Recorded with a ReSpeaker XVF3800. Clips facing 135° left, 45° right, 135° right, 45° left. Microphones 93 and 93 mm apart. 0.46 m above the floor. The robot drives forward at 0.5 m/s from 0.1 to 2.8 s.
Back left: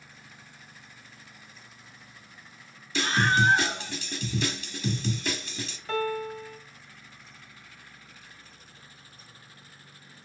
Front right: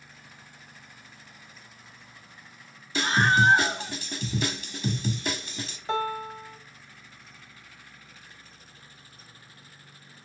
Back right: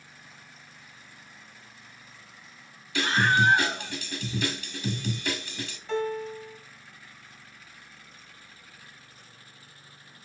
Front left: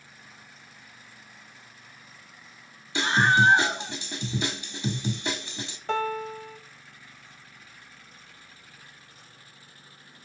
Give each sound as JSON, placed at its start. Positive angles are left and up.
{"t": 3.0, "sound": "a scream", "azimuth_deg": 15, "distance_m": 1.3}
{"t": 5.9, "sound": "a piano", "azimuth_deg": 20, "distance_m": 0.8}